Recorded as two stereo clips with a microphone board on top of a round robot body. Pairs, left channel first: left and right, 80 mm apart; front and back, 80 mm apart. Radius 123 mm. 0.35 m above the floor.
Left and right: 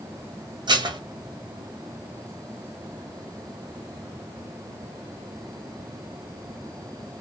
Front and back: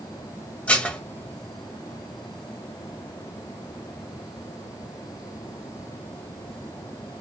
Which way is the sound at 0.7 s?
70° right.